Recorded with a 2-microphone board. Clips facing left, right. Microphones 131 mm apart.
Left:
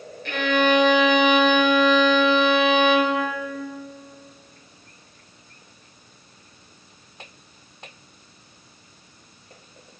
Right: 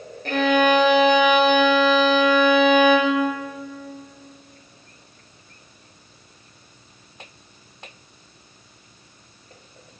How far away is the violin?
About 1.0 m.